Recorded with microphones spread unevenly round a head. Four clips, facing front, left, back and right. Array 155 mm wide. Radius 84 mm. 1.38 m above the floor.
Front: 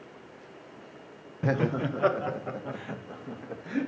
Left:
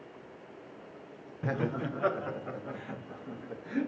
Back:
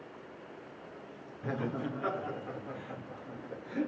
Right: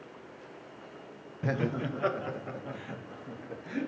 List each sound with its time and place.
1.4 s laughter: 10° left, 1.0 m; by 3.9 s 25° left, 2.5 m